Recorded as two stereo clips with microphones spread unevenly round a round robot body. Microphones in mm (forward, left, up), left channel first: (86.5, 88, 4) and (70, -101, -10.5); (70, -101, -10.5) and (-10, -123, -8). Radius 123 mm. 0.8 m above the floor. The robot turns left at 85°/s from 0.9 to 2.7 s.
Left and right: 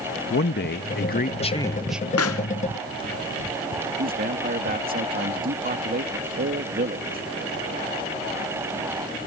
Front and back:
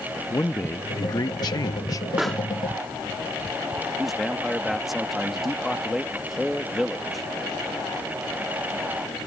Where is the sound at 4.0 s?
75° right.